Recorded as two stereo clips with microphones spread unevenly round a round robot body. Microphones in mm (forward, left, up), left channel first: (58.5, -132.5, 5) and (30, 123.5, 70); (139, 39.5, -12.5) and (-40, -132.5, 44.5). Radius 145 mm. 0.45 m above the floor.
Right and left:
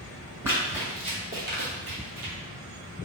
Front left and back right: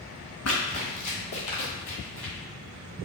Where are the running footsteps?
20° left, 1.6 m; by 2.3 s 110° left, 0.9 m.